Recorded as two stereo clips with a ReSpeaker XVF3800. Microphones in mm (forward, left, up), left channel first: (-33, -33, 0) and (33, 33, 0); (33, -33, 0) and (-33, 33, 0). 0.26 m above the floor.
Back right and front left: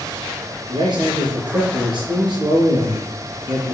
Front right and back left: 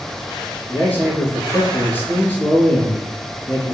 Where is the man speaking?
20° left, 3.5 m.